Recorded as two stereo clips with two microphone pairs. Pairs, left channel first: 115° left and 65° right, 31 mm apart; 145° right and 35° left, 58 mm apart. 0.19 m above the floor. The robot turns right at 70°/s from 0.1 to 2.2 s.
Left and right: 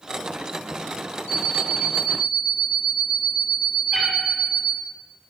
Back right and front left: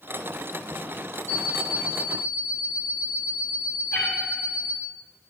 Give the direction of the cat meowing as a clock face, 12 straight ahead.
5 o'clock.